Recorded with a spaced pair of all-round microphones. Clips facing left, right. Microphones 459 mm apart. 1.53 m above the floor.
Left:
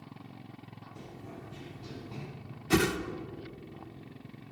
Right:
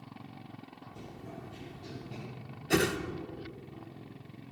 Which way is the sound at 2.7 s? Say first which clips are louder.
Left 1 dB; 20° left (ahead or behind).